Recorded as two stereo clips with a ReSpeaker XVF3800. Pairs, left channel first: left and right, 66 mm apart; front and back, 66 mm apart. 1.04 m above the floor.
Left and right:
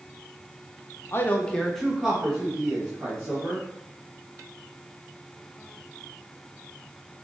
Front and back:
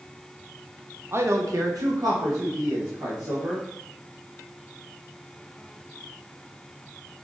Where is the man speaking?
135° left, 0.5 m; by 3.6 s 150° right, 1.7 m.